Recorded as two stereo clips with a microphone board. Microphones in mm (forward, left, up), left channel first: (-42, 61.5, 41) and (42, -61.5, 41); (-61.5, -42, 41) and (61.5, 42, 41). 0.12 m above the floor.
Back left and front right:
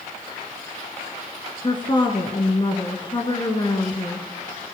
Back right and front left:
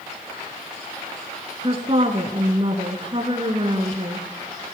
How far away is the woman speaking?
About 1.9 m.